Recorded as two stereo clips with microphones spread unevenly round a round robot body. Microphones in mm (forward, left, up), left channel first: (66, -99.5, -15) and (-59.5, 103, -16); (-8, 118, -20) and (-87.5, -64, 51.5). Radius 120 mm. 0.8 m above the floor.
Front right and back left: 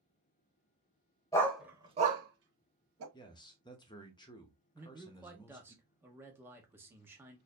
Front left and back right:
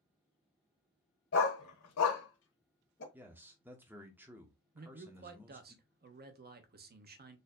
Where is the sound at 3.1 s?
5° right, 0.8 m.